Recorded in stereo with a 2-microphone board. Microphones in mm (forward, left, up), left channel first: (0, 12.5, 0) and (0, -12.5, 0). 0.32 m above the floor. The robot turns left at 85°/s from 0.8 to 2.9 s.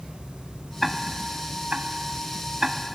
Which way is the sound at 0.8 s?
5° right (ahead or behind).